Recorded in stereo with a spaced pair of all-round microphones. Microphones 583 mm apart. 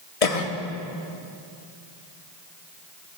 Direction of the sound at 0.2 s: 65° left (ahead or behind).